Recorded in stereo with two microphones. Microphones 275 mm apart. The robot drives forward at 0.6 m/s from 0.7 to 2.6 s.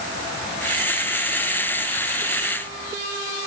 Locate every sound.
Only background noise.